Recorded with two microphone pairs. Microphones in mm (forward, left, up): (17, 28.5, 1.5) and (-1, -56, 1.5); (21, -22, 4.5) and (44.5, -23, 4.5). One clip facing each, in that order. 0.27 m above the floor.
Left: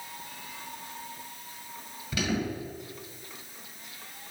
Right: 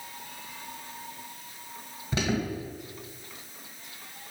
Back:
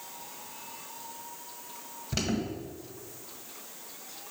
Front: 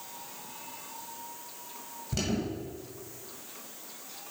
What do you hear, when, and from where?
2.1 s an alarm: 135° right, 1.7 m